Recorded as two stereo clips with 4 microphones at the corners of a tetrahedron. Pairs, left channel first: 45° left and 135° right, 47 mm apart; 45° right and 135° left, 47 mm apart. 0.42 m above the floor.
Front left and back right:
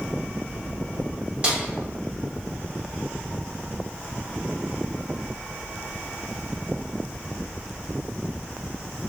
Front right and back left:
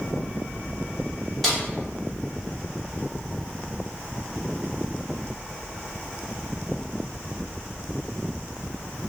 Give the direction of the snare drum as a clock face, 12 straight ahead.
4 o'clock.